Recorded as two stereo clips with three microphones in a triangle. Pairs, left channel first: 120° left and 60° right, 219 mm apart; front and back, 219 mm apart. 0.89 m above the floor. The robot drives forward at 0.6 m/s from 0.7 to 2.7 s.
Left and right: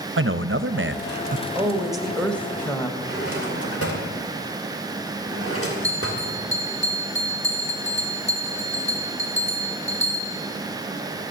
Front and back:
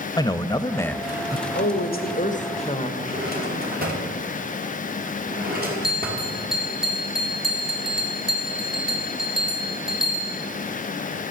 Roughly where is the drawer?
Behind left.